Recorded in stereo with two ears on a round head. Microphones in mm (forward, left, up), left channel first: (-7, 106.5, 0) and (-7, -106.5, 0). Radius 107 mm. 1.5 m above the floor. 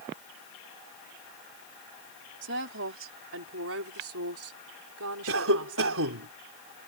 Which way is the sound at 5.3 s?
60° right (ahead or behind).